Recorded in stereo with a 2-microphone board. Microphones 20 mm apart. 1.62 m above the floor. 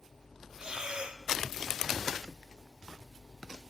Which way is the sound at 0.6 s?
50° right (ahead or behind).